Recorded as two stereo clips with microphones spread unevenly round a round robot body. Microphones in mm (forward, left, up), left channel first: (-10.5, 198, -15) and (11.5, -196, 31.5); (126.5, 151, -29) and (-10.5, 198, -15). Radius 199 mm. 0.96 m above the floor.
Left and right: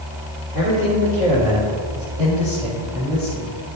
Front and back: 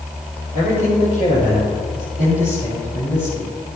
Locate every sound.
0.5 s a man speaking: 15° right, 4 m; by 3.5 s 5° left, 5 m